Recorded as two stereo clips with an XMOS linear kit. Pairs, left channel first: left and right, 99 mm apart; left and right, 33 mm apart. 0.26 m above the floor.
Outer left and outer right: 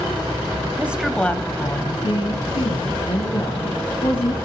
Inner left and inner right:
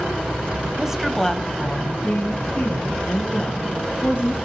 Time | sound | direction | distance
0.8 | a woman speaking | 20° right (ahead or behind) | 1.2 m